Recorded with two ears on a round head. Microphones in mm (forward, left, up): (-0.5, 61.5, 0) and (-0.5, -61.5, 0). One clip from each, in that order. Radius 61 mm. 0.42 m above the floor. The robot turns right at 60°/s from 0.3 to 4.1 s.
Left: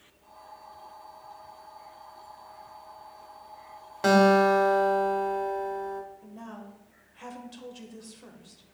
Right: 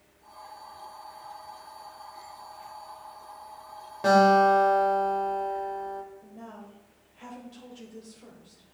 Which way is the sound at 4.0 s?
45° left (ahead or behind).